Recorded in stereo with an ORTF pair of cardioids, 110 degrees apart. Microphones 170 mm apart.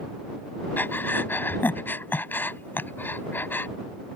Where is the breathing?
10° left.